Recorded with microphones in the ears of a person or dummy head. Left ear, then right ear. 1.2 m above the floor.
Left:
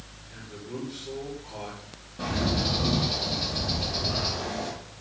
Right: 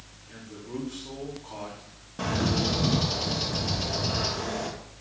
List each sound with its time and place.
0.3 s a man speaking: 45° right (ahead or behind), 3 m
2.2 s a bird: 55° right (ahead or behind), 1.5 m